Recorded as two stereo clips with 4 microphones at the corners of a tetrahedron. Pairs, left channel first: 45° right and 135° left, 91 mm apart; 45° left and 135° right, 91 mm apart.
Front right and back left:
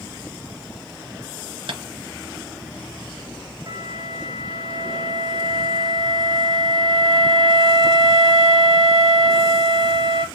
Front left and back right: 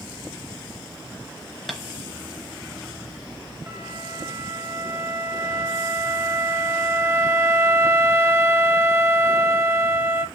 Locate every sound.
1.7 s tapping: 135° left, 0.7 m
3.7 s a flute: 170° left, 0.7 m